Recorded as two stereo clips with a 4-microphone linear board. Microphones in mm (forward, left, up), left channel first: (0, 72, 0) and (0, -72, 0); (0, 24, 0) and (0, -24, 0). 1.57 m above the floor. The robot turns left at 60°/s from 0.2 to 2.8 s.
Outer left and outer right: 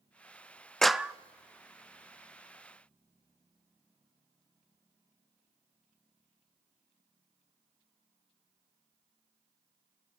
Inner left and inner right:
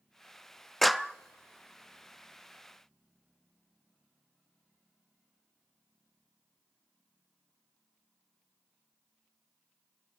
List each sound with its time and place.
0.8 s a clap: 5° left (ahead or behind), 0.5 m; by 1.1 s 15° right (ahead or behind), 0.5 m